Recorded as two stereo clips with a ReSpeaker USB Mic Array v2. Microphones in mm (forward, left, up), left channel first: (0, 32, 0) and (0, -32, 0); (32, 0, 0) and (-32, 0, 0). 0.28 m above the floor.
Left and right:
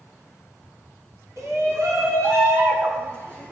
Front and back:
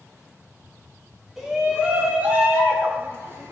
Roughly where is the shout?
Right.